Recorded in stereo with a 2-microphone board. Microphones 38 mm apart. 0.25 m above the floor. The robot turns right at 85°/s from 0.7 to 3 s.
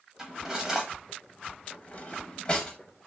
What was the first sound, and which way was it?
Cutlery clinking, 15° right (ahead or behind).